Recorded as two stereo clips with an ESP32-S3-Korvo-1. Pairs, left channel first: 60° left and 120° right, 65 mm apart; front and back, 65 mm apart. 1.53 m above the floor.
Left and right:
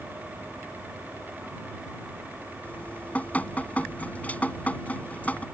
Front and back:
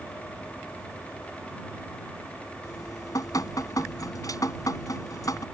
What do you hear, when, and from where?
2.6 s dripping: 5° right